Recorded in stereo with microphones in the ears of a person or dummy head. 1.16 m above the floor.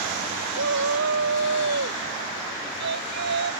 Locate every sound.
0.5 s a shout: 65° right (ahead or behind); by 3.5 s 60° right (ahead or behind)